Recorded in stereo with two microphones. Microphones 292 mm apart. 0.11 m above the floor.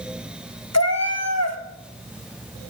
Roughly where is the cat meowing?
Left.